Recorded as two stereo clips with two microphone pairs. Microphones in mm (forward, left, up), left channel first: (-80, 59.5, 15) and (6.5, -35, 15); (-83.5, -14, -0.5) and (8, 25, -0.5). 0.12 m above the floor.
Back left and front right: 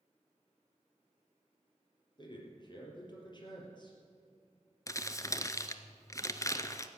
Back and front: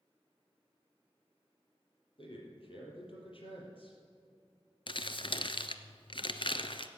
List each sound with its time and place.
2.2 s a man speaking: straight behind, 4 m
4.9 s crumpling: 170° right, 0.7 m